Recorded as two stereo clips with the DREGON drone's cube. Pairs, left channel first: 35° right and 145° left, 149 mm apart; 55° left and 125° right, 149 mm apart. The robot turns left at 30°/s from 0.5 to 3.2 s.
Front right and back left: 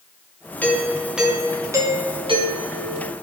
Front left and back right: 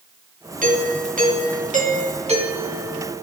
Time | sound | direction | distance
0.6 | a doorbell | 115° right | 3 m